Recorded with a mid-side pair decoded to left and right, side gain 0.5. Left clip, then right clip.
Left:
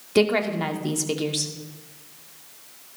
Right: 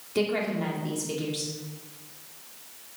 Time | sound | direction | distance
0.1 | a woman speaking | 50° left | 2 m